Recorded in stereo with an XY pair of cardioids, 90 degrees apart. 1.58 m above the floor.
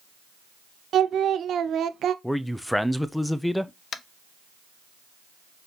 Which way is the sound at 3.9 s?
65° left.